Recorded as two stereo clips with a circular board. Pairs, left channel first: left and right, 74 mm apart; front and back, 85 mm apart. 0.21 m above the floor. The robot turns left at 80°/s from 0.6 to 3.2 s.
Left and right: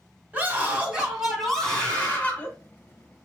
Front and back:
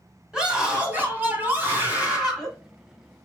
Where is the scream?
115° right, 1.2 m; by 2.5 s 95° left, 1.2 m.